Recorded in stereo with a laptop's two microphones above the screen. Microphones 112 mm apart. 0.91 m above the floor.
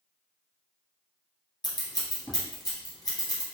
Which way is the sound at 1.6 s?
35° left (ahead or behind).